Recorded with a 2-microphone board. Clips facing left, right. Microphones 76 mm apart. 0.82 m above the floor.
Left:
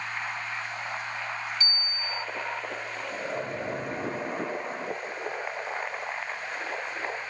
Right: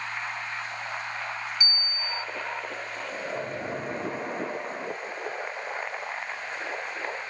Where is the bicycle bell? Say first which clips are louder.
Right 1 dB; 20° right (ahead or behind), 4 m.